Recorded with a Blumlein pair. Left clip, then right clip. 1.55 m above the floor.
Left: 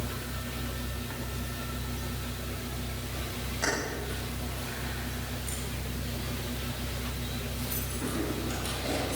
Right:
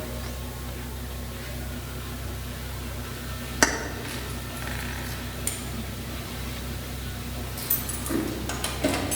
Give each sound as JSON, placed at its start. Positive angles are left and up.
{"t": 3.6, "sound": "keys jangling", "azimuth_deg": -50, "distance_m": 2.5}